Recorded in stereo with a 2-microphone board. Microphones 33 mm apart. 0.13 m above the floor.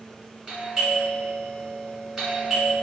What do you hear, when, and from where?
0.5 s a doorbell: 5° right (ahead or behind), 1.6 m